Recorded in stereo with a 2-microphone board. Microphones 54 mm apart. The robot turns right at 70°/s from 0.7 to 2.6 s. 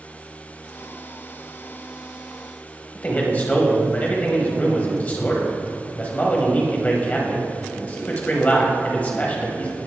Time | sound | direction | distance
3.0 | a man speaking | 30° left (ahead or behind) | 1.0 m